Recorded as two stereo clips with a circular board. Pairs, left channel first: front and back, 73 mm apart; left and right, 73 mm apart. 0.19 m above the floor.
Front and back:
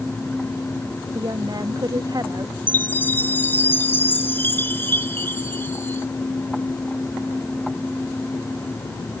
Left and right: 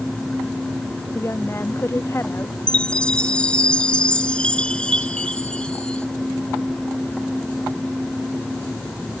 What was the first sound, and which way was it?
A woman speaking, 145° left.